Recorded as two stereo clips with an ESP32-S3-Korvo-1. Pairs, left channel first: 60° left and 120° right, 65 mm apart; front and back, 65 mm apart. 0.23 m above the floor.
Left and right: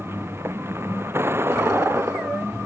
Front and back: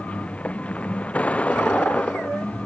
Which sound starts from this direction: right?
A vehicle, at 0.0 s.